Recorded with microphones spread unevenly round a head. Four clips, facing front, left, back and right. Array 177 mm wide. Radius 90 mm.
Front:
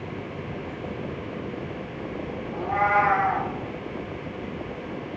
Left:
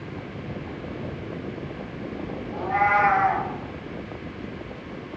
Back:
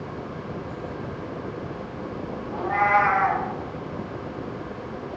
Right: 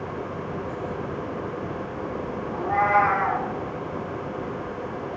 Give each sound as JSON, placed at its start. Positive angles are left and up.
{"t": 2.5, "sound": "a cat meowing", "azimuth_deg": -155, "distance_m": 0.8}